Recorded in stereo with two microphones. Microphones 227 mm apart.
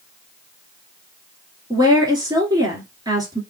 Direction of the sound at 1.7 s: 15° right (ahead or behind).